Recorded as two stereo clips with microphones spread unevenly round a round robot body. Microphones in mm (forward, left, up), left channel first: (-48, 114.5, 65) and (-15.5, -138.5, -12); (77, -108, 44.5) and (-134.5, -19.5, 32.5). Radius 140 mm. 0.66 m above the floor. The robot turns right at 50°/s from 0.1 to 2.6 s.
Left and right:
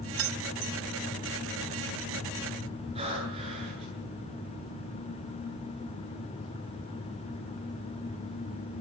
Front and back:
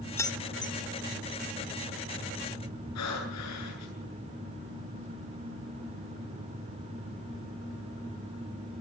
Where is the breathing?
10° right, 8.5 m.